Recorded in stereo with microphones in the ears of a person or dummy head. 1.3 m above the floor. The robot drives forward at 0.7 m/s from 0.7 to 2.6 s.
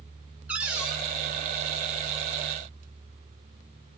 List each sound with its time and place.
0.5 s a cupboard door: 5° right (ahead or behind), 0.7 m